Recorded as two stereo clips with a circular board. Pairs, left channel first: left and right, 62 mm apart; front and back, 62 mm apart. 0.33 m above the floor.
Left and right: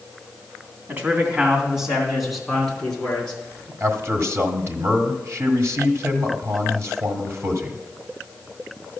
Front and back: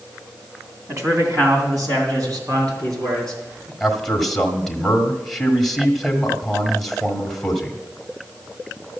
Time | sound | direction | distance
0.9 | a man speaking | 145° right | 3 m
3.8 | a man speaking | 85° right | 1.5 m